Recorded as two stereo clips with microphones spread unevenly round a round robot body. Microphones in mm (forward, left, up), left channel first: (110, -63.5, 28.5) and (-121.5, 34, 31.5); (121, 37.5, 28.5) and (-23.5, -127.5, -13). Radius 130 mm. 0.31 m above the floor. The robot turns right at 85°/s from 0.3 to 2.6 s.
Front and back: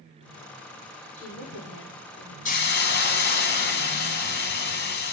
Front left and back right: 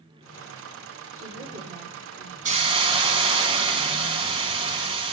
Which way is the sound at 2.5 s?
80° right.